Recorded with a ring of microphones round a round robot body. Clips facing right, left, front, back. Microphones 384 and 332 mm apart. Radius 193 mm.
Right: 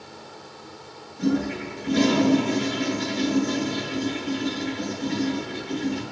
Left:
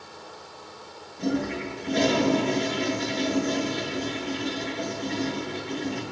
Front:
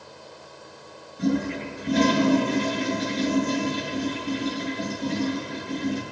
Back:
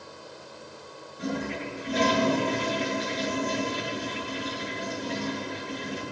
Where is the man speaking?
No man speaking in this recording.